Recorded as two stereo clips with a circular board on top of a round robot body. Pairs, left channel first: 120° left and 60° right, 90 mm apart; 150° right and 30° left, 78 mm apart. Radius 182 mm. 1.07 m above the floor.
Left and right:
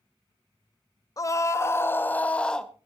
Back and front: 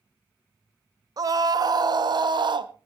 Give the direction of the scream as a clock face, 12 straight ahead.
10 o'clock.